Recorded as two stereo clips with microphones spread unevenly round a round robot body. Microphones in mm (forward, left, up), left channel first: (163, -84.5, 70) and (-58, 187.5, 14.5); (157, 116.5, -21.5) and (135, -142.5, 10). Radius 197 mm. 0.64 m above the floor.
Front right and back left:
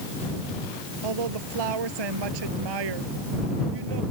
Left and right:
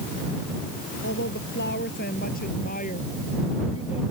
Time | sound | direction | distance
1.0 | a woman speaking | 150° left | ?